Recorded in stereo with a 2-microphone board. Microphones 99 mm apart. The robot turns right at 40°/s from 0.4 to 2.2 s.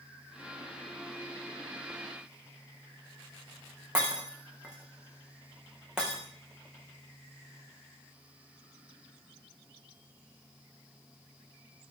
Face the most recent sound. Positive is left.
turn(degrees=-10)  # may be behind; listen again after turning